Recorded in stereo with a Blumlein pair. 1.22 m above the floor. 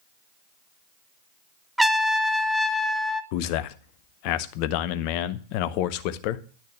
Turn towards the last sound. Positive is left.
turn(degrees=45)